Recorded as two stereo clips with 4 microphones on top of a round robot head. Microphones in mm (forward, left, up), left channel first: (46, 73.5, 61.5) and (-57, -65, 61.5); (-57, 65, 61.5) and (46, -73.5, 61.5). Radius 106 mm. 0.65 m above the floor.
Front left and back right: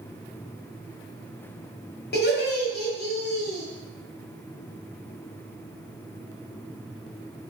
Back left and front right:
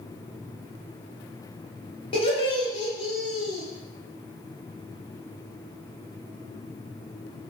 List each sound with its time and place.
2.1 s laughter: 70° left, 1.1 m